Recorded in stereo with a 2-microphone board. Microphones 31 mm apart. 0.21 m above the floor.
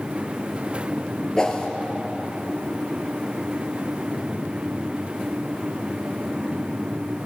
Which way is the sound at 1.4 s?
20° left (ahead or behind).